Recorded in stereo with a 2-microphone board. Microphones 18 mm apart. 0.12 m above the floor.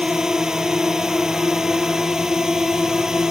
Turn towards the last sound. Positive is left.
turn(degrees=-30)  # may be behind; listen again after turning